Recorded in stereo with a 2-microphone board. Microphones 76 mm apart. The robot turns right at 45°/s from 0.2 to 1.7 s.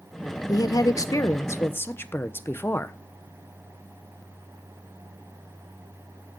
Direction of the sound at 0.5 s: 85° left.